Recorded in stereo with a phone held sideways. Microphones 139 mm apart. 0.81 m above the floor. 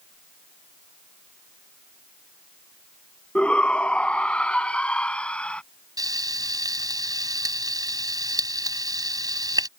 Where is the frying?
25° right (ahead or behind).